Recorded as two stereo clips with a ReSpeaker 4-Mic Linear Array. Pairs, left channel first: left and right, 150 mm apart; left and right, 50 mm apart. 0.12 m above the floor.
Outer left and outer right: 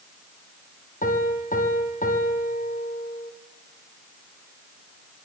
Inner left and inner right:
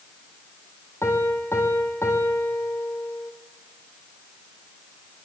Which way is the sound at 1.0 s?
60° left (ahead or behind).